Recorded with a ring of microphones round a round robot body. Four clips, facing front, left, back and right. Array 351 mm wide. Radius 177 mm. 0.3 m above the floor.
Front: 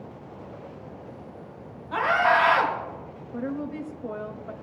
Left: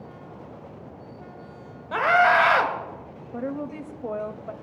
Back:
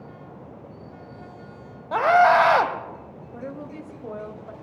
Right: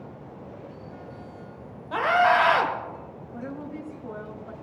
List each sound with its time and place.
1.9 s a scream: 160° left, 1.8 m
3.3 s a woman speaking: 80° left, 1.4 m